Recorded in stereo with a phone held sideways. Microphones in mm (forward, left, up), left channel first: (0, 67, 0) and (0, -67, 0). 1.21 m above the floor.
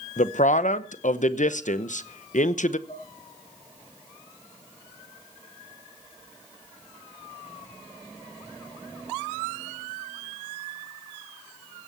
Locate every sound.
0.2 s a man speaking: 70° left (ahead or behind), 0.9 m
2.9 s dishes clattering: 75° left (ahead or behind), 9.5 m